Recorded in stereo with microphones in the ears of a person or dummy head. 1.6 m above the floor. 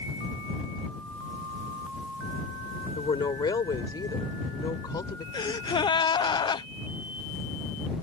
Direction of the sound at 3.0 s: 25° left (ahead or behind).